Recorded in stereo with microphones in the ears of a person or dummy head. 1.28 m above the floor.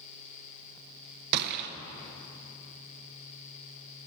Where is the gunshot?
55° right (ahead or behind), 0.7 m.